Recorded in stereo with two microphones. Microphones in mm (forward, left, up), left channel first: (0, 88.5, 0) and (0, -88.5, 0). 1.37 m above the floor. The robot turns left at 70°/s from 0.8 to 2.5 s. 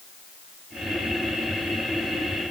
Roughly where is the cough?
I don't hear a cough.